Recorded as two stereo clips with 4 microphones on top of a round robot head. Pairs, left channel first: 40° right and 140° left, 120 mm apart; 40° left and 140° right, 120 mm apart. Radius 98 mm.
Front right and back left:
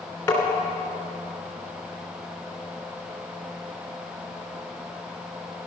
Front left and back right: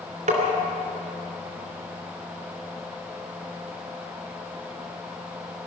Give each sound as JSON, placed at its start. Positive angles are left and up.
{"t": 0.3, "sound": "tapping", "azimuth_deg": -115, "distance_m": 2.5}